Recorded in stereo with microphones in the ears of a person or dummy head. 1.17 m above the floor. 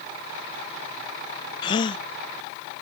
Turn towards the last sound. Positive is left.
turn(degrees=30)  # may be behind; listen again after turning